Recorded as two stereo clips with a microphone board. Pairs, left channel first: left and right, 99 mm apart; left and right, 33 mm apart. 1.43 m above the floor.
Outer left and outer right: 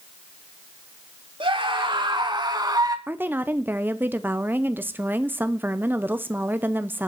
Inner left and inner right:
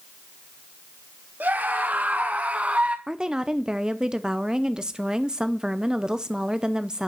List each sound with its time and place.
1.4 s a scream: 60° right (ahead or behind), 3 m; by 3.0 s 40° right (ahead or behind), 2.5 m
3.1 s a woman speaking: 20° right (ahead or behind), 0.7 m